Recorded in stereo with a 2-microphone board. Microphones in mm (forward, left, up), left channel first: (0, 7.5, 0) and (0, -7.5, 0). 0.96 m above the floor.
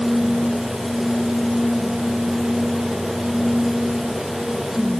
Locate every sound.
Only background noise.